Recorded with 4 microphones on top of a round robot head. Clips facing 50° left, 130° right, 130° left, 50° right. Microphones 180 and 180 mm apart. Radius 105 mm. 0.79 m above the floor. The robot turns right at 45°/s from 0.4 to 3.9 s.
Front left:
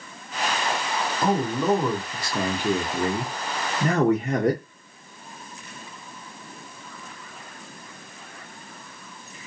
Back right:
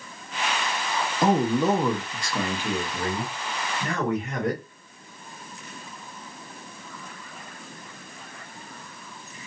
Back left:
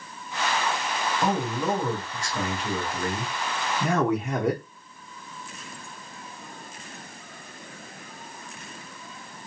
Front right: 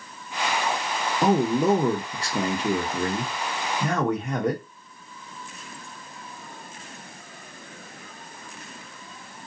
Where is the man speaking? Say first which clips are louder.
Back right 3 dB, front right 7 dB; 75° right, 0.8 m; by 4.6 s 45° left, 0.8 m.